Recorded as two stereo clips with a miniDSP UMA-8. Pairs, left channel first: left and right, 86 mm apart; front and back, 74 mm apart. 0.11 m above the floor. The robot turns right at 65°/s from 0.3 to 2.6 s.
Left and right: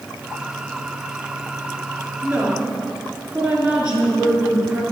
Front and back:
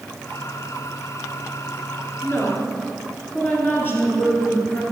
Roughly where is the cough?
I don't hear a cough.